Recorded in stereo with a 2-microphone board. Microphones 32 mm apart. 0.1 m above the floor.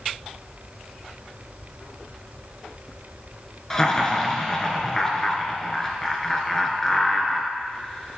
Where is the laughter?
15° left (ahead or behind), 1.1 m.